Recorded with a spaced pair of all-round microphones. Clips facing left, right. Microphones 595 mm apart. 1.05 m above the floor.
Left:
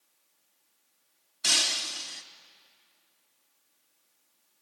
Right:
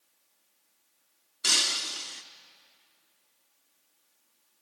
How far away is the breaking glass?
About 0.9 m.